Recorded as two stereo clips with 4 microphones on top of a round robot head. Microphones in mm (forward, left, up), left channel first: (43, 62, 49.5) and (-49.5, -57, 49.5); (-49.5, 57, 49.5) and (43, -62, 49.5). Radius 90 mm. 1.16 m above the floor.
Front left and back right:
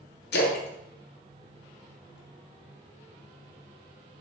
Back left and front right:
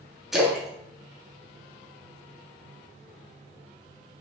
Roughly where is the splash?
Ahead left.